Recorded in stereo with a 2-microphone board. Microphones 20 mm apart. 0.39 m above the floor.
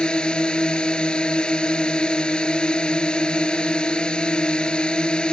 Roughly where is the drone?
Left.